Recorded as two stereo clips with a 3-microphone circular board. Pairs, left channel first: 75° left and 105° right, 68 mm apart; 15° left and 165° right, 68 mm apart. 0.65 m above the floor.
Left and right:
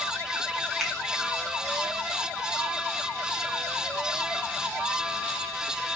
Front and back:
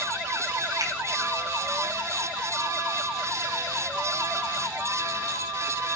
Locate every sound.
0.8 s a finger snap: 165° left, 6.5 m